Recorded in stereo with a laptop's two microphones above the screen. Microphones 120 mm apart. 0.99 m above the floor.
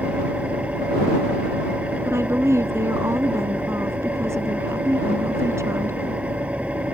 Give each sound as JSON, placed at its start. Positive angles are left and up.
{"t": 0.0, "sound": "an engine running", "side_deg": -10}
{"t": 2.0, "sound": "a woman speaking", "side_deg": -20}